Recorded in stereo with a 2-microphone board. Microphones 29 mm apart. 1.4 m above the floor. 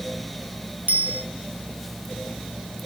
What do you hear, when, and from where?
0.9 s a bicycle bell: 75° right (ahead or behind), 4 m